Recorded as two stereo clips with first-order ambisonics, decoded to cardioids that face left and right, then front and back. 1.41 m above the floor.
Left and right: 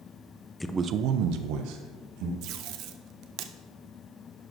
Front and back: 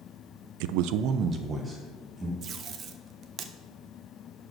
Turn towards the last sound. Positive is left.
turn(degrees=-125)